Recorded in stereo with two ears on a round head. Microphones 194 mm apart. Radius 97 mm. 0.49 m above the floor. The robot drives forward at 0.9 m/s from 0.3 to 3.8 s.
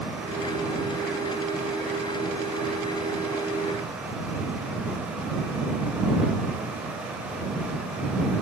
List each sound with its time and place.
Only background noise.